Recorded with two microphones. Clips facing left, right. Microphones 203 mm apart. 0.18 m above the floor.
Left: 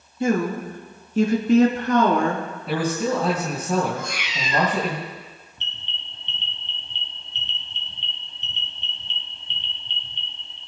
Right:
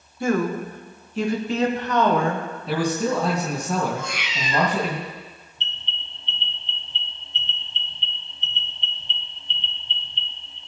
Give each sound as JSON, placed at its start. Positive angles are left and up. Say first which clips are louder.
{"t": 0.2, "sound": "a woman speaking", "louder": "left 1 dB", "side_deg": 25, "distance_m": 2.0}
{"t": 2.7, "sound": "a man speaking", "louder": "even", "side_deg": 5, "distance_m": 3.0}
{"t": 4.0, "sound": "a cat meowing", "louder": "even", "side_deg": 45, "distance_m": 2.0}
{"t": 5.6, "sound": "an alarm", "louder": "right 1 dB", "side_deg": 60, "distance_m": 4.5}